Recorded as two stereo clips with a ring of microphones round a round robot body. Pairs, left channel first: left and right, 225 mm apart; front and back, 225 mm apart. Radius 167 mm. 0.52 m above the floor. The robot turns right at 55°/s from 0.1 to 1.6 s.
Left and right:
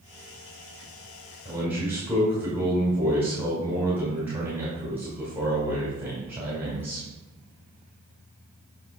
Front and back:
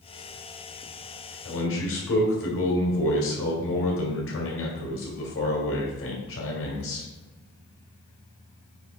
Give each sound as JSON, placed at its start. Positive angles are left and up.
{"t": 1.4, "sound": "a man speaking", "azimuth_deg": -15, "distance_m": 2.0}